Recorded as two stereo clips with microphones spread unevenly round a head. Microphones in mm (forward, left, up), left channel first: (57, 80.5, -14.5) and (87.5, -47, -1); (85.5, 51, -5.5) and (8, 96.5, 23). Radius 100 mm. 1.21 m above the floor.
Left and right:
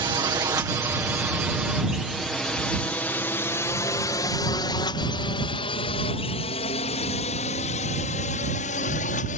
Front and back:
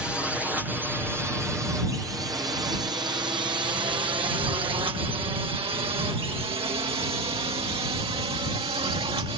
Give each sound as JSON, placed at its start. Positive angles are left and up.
{"t": 0.0, "sound": "a drone", "azimuth_deg": -105}